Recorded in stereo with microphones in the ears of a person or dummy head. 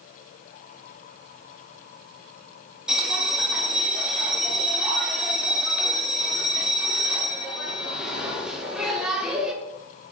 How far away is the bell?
About 0.8 m.